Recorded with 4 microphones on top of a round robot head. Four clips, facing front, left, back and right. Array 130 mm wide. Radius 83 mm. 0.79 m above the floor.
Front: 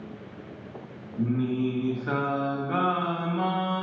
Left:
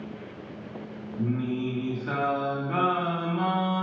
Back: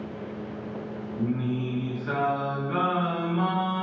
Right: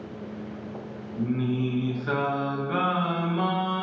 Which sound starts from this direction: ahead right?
Singing, at 1.2 s.